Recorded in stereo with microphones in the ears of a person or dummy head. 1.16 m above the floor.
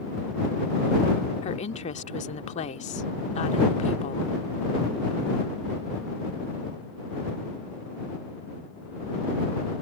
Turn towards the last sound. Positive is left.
turn(degrees=40)  # may be behind; listen again after turning